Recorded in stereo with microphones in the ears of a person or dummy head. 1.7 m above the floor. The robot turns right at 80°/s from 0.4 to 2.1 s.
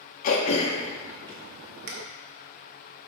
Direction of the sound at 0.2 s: 45° left (ahead or behind).